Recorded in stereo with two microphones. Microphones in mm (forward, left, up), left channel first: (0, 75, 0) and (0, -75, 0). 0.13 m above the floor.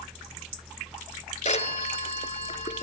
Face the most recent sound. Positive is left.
turn(degrees=50)  # may be behind; listen again after turning